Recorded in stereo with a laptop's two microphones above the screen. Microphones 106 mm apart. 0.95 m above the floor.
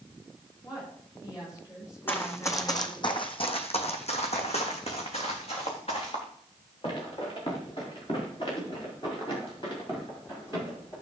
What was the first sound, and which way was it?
A woman speaking, 30° left (ahead or behind).